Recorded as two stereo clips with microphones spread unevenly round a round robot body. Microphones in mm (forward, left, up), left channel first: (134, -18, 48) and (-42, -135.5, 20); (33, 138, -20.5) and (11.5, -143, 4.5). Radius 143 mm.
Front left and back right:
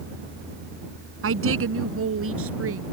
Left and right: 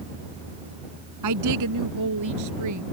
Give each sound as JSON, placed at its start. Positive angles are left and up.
{"t": 1.2, "sound": "a woman speaking", "azimuth_deg": -130}